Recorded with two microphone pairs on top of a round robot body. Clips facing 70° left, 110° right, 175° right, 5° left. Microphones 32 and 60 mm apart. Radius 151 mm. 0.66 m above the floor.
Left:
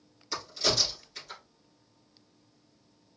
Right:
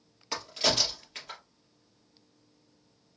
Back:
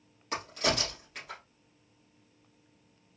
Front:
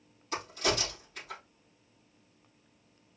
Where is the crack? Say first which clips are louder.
Right 1 dB, back 1 dB; 150° right, 3 m.